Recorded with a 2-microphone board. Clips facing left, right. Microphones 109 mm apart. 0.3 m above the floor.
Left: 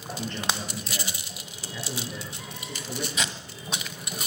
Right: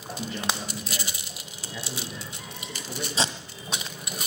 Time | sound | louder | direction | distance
0.2 | a man speaking | even | 5° right (ahead or behind) | 7.5 m
1.7 | a man speaking | left 1 dB | 5° left (ahead or behind) | 7.5 m
3.2 | tape being pulled | right 3 dB | 30° right (ahead or behind) | 1.2 m